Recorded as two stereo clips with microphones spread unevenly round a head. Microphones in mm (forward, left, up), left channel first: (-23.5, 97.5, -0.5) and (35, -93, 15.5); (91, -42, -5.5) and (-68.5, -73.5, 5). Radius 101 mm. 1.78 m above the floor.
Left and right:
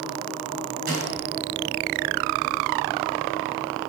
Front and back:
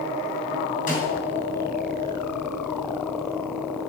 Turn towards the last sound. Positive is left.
turn(degrees=-30)